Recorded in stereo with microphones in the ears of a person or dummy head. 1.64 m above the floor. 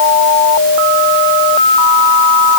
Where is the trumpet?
I don't hear a trumpet.